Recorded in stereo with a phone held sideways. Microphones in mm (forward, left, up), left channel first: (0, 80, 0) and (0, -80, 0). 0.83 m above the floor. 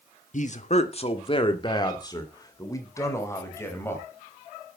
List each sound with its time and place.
0.3 s a man speaking: 55° left (ahead or behind), 1.5 m; by 4.0 s 15° left (ahead or behind), 5.5 m